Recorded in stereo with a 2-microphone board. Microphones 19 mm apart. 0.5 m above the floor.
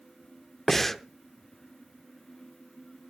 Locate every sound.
0.7 s breathing: 10° left (ahead or behind), 0.7 m